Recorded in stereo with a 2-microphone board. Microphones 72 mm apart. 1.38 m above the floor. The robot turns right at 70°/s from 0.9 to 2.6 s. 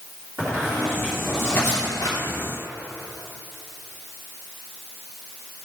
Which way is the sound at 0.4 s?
30° right (ahead or behind).